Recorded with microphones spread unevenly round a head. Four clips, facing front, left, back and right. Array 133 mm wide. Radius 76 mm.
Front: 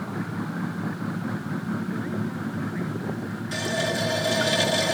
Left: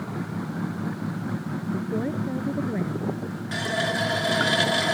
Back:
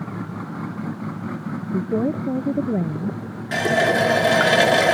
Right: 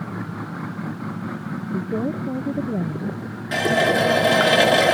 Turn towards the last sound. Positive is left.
turn(degrees=-130)